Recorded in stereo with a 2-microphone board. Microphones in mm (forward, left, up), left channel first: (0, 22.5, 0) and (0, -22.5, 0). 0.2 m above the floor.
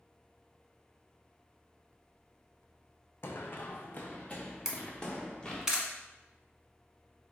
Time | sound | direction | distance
3.2 | running footsteps | 60° left (ahead or behind) | 0.6 m
4.7 | a camera shutter | 15° right (ahead or behind) | 1.0 m